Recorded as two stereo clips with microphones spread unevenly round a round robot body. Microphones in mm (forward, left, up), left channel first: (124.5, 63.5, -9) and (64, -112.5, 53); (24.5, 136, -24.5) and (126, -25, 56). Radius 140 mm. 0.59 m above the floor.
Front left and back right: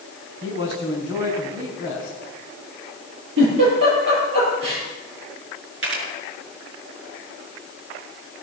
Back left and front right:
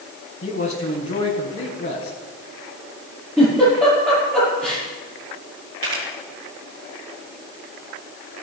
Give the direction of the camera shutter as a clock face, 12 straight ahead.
3 o'clock.